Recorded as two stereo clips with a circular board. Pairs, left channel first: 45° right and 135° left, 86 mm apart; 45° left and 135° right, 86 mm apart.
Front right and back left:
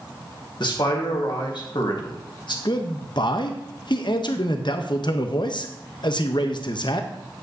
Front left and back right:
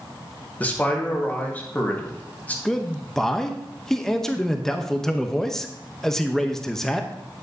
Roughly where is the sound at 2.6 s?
Ahead right.